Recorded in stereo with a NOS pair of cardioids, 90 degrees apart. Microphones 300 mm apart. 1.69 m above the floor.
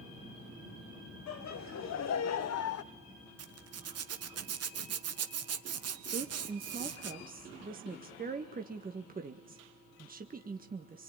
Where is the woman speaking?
30° right, 1.6 m.